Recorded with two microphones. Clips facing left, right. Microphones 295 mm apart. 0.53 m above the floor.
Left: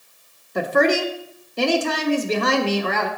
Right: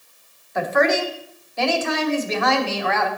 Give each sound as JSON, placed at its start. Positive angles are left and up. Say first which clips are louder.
{"t": 0.6, "sound": "a woman speaking", "louder": "left 1 dB", "side_deg": 40, "distance_m": 1.0}